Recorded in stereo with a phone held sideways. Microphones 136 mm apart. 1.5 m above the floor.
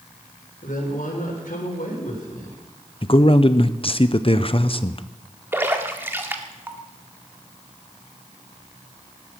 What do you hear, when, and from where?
0.6 s a woman speaking: 80° left, 5 m
3.0 s a man speaking: 40° left (ahead or behind), 0.9 m
5.5 s a splash: 15° right (ahead or behind), 1.6 m